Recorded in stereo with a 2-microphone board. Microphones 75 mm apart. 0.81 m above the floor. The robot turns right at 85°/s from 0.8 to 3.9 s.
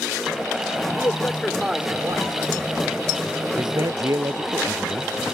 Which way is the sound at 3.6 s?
80° right.